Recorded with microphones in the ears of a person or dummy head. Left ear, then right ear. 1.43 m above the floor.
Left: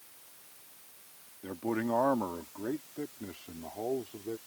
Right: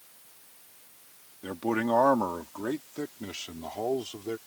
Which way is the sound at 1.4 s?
80° right.